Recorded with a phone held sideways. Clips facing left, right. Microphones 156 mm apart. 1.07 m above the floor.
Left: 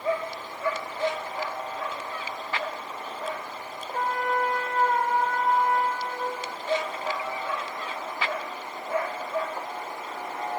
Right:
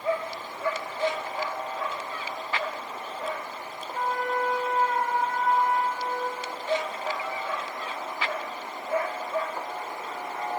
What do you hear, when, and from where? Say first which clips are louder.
3.9 s a trumpet: left 1 dB; 60° left (ahead or behind), 0.9 m